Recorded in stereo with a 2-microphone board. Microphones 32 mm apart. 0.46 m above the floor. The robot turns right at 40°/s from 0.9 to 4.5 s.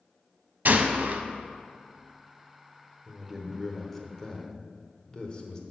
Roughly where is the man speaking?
Ahead right.